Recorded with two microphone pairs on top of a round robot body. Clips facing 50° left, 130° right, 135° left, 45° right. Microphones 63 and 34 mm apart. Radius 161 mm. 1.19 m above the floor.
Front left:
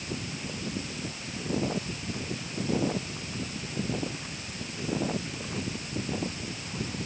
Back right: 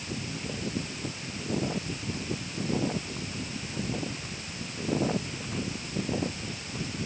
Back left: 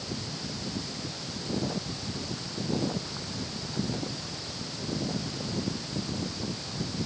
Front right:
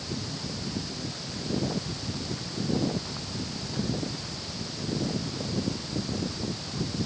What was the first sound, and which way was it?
Only background noise.